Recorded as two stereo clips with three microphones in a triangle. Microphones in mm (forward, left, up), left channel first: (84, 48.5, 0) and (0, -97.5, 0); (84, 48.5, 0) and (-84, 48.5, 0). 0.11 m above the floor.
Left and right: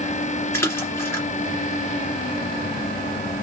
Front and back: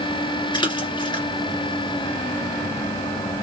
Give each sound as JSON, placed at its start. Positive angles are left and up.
{"t": 0.5, "sound": "a splash", "azimuth_deg": 5, "distance_m": 1.9}